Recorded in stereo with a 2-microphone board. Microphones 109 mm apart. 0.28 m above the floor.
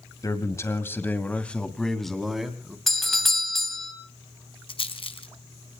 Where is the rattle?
55° left (ahead or behind), 1.6 m.